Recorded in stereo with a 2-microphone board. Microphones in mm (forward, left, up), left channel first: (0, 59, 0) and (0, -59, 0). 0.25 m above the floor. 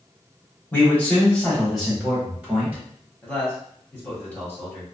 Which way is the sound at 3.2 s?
15° left (ahead or behind).